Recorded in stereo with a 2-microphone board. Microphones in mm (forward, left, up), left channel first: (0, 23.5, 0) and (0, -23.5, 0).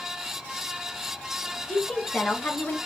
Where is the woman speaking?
30° left (ahead or behind), 2.5 m; by 2.8 s 45° left (ahead or behind), 2.0 m.